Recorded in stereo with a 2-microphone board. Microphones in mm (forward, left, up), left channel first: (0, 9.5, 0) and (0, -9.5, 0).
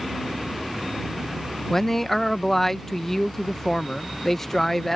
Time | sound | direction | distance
1.7 | a man speaking | 15° left (ahead or behind) | ?